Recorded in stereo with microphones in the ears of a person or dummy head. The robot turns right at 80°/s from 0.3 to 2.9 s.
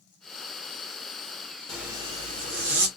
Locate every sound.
1.7 s a zipper: 175° right, 0.8 m; by 2.9 s 80° right, 0.8 m